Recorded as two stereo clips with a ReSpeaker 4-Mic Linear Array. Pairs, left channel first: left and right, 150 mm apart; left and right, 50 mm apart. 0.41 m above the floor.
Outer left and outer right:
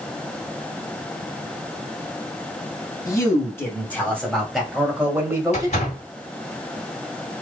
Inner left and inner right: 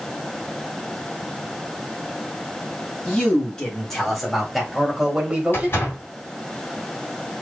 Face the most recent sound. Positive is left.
turn(degrees=50)  # may be behind; listen again after turning